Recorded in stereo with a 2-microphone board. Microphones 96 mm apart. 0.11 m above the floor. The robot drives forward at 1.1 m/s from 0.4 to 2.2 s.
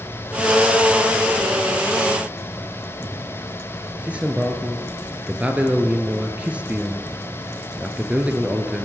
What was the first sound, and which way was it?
A man speaking, 15° right (ahead or behind).